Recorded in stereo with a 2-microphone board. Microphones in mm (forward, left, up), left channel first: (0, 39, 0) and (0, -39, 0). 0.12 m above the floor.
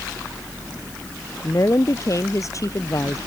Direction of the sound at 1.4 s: 45° left (ahead or behind).